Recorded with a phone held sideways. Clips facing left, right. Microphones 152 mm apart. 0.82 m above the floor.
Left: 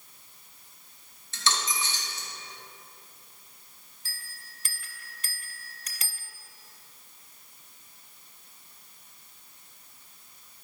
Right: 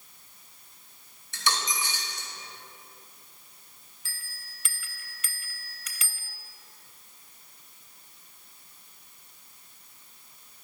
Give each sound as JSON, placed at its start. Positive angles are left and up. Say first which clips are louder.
{"t": 1.3, "sound": "a dropped coin", "louder": "even", "side_deg": -15, "distance_m": 1.9}
{"t": 4.0, "sound": "a bell", "louder": "left 1 dB", "side_deg": 40, "distance_m": 0.7}